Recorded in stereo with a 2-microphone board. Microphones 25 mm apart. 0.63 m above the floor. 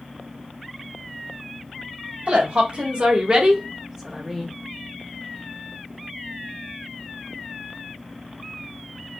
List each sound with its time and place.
2.3 s a woman speaking: 55° right (ahead or behind), 1.4 m; by 4.5 s 5° left (ahead or behind), 1.0 m